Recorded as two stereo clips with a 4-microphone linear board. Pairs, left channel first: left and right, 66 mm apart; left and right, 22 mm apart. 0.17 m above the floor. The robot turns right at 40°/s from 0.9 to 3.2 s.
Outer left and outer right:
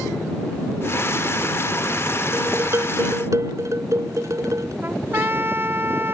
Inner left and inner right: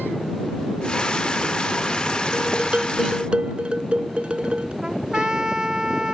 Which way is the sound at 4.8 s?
35° right (ahead or behind).